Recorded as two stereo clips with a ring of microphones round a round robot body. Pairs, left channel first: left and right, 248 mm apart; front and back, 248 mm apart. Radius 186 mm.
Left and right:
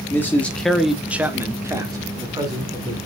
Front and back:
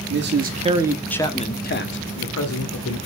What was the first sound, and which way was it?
A man speaking, 170° left.